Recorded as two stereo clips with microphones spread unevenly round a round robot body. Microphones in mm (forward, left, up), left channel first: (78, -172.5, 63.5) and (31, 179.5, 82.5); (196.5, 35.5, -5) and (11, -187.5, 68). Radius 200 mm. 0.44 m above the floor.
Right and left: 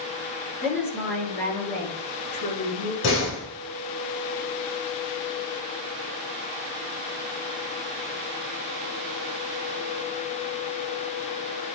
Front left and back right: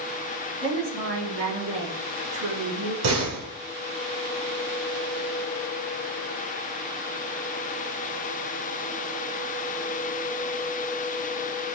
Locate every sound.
0.6 s a woman speaking: straight behind, 5 m; by 2.9 s 145° right, 4.5 m
3.0 s a door slam: 140° right, 3.5 m